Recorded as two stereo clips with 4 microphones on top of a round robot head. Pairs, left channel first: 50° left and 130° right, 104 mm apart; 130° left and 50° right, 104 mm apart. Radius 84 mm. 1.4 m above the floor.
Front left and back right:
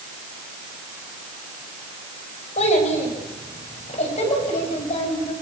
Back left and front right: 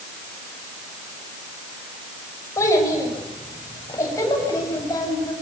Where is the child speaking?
70° left, 6.5 m; by 5.3 s 75° left, 8.5 m.